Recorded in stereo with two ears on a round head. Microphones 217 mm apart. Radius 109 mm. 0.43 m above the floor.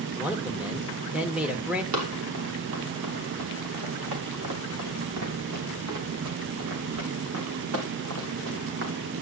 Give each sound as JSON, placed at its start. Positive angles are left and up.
{"t": 0.1, "sound": "a man speaking", "side_deg": -5, "distance_m": 1.1}
{"t": 1.9, "sound": "running footsteps", "side_deg": -75, "distance_m": 5.5}